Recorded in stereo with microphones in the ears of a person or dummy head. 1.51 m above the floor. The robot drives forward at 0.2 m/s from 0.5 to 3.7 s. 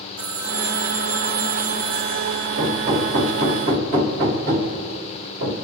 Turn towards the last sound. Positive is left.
turn(degrees=-45)  # may be behind; listen again after turning